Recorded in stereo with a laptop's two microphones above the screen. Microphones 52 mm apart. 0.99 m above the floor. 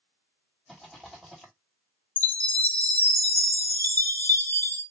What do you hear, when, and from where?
0.7 s a rattle: centre (ahead or behind), 2.0 m
2.2 s a chime: 35° left (ahead or behind), 1.0 m